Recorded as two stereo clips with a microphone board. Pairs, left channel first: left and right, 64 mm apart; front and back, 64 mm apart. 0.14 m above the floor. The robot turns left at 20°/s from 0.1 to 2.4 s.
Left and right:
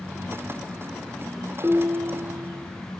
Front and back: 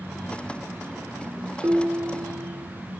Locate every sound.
1.6 s dishes clattering: 130° right, 1.1 m; by 2.7 s 145° right, 1.1 m